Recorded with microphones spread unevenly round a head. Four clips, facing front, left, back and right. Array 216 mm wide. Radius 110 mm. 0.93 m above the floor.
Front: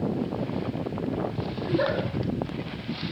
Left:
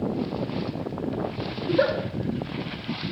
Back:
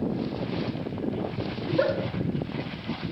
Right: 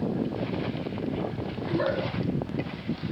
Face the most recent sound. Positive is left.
turn(degrees=105)